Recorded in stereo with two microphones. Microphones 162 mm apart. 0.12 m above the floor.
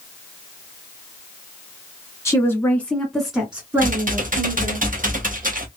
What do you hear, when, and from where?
2.2 s a woman speaking: 20° left (ahead or behind), 1.7 m; by 4.8 s 25° right (ahead or behind), 2 m
3.8 s typing on a keyboard: 65° right (ahead or behind), 1.1 m